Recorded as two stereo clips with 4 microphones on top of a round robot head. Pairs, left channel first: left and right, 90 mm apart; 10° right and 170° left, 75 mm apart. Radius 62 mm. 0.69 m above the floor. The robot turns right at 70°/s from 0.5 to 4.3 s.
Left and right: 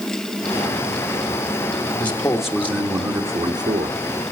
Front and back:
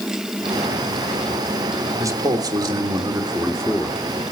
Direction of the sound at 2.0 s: 155° left.